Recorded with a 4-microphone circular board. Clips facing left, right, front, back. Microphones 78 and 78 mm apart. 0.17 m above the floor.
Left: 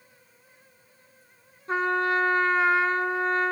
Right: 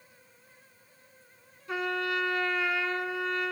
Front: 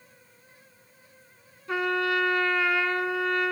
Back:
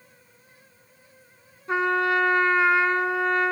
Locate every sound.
1.7 s a trumpet: 125° left, 0.8 m